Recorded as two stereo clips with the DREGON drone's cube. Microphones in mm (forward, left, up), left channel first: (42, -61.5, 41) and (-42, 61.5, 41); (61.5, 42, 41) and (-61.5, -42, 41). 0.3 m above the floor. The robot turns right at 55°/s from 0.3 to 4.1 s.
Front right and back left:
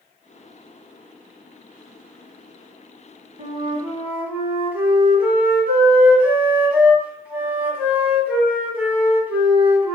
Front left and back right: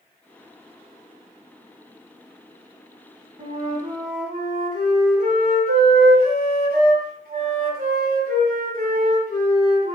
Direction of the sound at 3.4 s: 165° left.